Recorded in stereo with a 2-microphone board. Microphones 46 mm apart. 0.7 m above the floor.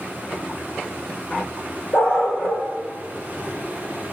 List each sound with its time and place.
1.9 s a dog barking: 45° left (ahead or behind), 9.5 m